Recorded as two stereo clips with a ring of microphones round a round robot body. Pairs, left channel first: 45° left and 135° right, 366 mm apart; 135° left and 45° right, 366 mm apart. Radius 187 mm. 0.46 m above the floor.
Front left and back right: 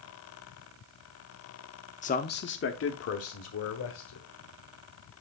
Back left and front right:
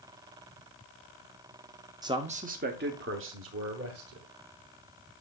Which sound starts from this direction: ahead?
A man speaking, at 2.0 s.